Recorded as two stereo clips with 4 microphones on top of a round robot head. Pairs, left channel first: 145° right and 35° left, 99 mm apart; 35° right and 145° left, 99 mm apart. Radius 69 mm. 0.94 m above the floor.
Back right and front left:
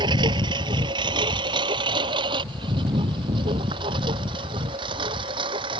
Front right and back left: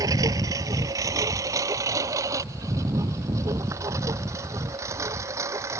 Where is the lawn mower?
85° left; by 5.8 s 80° left.